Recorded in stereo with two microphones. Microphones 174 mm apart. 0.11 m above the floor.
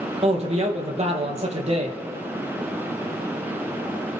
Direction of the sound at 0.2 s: 40° right (ahead or behind).